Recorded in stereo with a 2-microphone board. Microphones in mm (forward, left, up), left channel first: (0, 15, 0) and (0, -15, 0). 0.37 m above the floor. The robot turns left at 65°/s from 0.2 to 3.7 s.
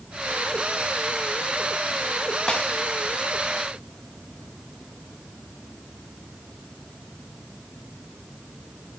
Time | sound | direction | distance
2.5 | a snare drum | 30° left (ahead or behind) | 2 m